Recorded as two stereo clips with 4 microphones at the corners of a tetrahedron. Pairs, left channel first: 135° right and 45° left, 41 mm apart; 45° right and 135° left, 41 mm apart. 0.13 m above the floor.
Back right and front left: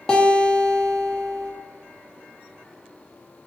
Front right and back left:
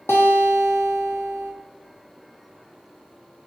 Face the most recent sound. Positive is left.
turn(degrees=-65)